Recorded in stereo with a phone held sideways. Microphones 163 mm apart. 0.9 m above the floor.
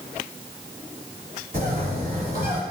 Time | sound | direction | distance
1.5 | a bird | 60° right (ahead or behind) | 1.6 m